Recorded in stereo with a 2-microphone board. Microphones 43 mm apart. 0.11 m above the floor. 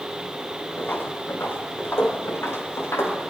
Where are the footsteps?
50° left (ahead or behind), 4 m; by 3.2 s 80° left, 5.5 m.